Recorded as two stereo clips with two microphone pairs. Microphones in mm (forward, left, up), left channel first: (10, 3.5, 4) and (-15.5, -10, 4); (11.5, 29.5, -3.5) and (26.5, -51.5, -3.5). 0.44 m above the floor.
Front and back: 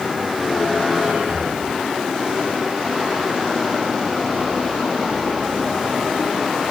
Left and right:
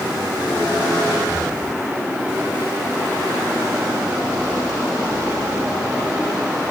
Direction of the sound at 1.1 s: 160° right.